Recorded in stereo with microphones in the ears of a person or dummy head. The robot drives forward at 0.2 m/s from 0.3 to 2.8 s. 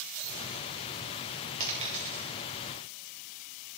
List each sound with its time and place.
1.6 s a dropped coin: 30° right (ahead or behind), 1.7 m